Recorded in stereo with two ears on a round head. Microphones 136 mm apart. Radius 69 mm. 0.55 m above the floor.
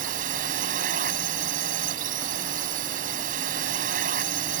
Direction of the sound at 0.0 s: 55° right (ahead or behind).